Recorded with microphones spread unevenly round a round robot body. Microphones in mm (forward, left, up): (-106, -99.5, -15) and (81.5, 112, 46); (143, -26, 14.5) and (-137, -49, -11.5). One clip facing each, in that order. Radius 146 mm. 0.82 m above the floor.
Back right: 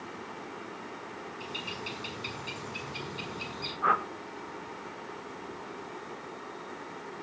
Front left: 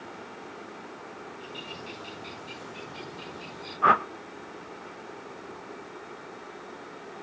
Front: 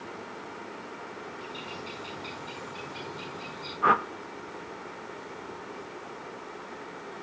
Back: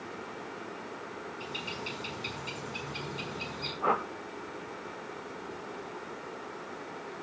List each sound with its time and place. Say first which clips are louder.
1.4 s a bird: even, even; 135° right, 7 m
3.8 s a whoosh: front left 6 dB, front 2 dB; 60° left, 1.1 m